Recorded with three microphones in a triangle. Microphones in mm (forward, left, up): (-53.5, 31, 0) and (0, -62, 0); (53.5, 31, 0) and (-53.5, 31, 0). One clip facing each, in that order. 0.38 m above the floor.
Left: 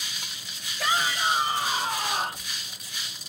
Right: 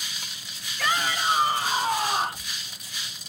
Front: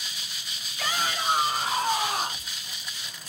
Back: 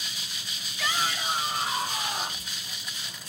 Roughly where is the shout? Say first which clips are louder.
Even, front 1 dB; ahead right.